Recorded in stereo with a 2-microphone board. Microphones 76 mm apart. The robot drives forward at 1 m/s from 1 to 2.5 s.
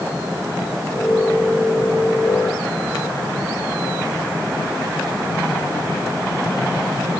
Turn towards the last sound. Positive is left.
No sound to turn to.